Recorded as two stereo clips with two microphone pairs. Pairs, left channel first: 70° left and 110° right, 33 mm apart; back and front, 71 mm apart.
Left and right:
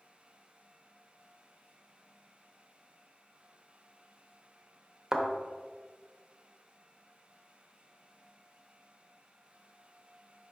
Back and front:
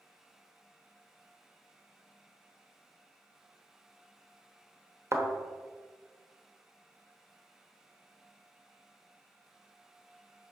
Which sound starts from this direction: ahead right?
A thud, at 5.1 s.